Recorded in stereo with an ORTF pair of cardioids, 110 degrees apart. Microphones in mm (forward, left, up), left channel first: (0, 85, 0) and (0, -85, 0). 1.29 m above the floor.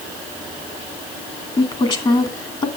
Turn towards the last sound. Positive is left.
turn(degrees=30)